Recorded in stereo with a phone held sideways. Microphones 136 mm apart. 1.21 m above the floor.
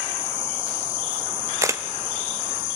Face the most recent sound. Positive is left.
turn(degrees=-20)  # may be behind; listen again after turning